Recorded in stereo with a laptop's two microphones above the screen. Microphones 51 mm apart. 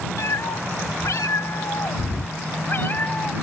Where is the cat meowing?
70° left (ahead or behind); by 3.3 s 35° left (ahead or behind).